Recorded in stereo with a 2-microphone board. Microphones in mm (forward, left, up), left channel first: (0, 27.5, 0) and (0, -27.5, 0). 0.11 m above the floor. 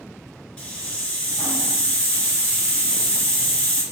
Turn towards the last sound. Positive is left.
turn(degrees=15)  # may be behind; listen again after turning